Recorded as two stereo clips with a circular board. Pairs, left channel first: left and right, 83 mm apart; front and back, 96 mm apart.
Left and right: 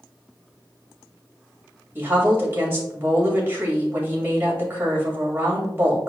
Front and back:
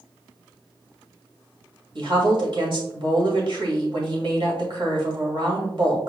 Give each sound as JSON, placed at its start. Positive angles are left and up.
{"t": 1.9, "sound": "a woman speaking", "azimuth_deg": -155, "distance_m": 1.9}